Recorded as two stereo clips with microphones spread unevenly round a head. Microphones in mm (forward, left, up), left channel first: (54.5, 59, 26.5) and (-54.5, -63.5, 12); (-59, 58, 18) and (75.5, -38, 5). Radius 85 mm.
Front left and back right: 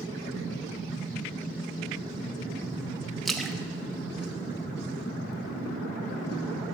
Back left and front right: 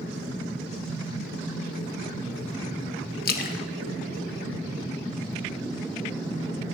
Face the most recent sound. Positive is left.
turn(degrees=135)